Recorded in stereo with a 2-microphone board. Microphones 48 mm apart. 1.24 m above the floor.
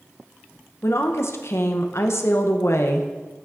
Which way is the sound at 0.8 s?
65° left (ahead or behind).